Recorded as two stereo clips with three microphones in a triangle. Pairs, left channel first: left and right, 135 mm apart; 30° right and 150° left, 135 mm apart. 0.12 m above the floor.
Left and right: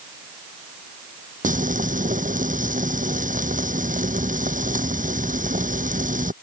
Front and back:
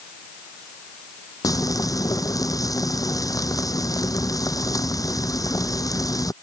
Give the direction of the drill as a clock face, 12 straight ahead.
I don't hear a drill.